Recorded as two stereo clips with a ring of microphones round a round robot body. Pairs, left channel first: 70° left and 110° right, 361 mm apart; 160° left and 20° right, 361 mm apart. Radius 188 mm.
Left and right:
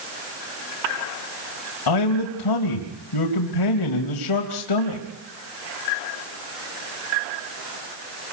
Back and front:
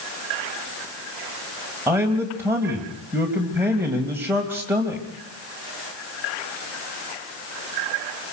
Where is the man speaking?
60° left, 3 m.